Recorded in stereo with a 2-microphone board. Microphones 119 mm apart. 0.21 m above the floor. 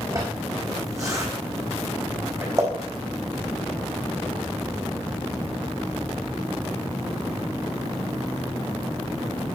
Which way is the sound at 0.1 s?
25° right (ahead or behind).